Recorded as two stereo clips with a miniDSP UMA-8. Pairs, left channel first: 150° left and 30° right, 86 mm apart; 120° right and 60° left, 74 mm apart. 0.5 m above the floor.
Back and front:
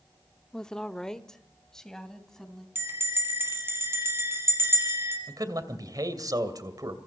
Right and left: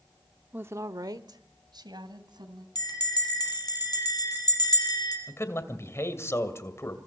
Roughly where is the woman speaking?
Left.